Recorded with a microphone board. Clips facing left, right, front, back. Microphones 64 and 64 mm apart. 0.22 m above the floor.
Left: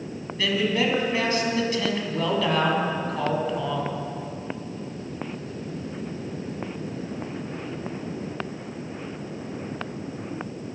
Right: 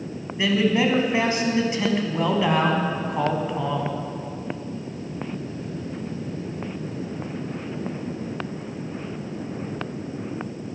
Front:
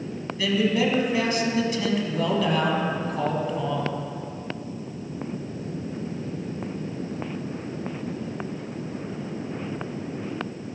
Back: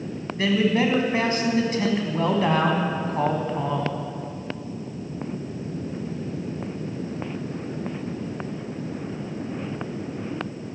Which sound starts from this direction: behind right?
A man speaking, at 0.4 s.